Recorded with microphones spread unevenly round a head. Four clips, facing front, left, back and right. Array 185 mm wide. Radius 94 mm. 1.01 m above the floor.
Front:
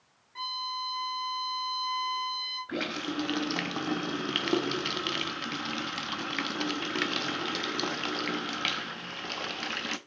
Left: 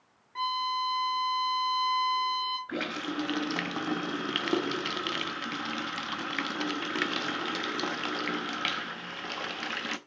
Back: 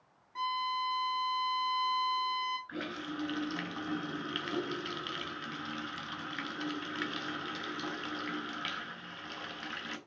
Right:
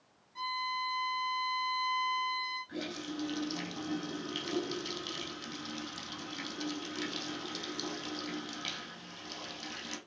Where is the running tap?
35° left, 0.8 m.